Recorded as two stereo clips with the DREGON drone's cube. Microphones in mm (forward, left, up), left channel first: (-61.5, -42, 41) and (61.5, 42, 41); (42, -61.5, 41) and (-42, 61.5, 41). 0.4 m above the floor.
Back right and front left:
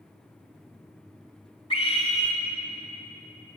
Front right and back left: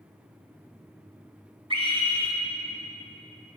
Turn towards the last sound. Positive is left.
turn(degrees=170)